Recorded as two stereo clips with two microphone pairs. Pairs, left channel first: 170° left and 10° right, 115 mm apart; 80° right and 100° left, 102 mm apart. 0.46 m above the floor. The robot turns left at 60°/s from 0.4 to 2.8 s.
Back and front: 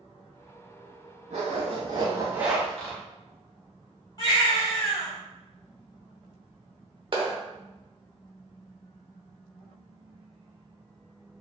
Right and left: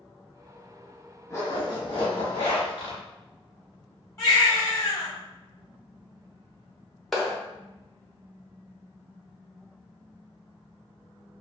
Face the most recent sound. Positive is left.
turn(degrees=5)